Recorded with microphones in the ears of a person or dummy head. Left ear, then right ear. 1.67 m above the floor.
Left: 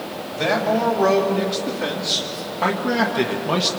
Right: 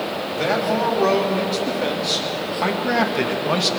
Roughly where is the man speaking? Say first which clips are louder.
Left 1 dB; centre.